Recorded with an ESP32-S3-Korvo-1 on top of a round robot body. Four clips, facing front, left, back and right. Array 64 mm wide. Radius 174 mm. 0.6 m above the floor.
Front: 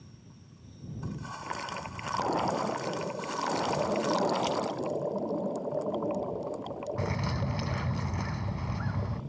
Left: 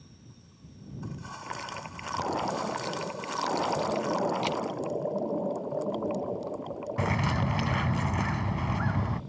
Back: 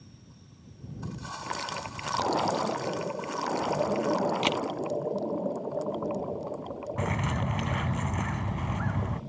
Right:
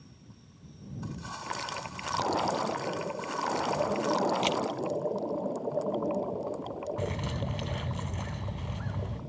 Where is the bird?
115° left.